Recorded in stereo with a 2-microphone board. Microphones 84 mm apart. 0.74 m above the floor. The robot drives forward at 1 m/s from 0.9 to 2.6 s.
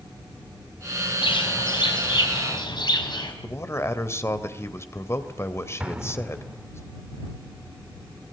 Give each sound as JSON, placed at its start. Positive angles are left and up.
{"t": 1.2, "sound": "a bird", "side_deg": 75, "distance_m": 4.5}
{"t": 3.4, "sound": "a man speaking", "side_deg": 35, "distance_m": 2.5}
{"t": 5.8, "sound": "an explosion", "side_deg": -15, "distance_m": 1.4}